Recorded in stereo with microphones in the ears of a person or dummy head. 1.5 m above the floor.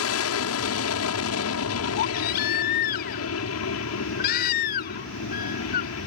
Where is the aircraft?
75° left (ahead or behind).